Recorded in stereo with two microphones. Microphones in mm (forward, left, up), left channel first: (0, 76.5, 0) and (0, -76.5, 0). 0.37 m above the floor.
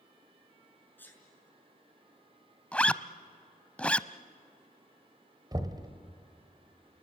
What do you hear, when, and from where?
1.0 s a sneeze: 10° left (ahead or behind), 5.5 m
2.7 s a zipper: 10° left (ahead or behind), 0.6 m
5.5 s knocking: 25° right (ahead or behind), 1.4 m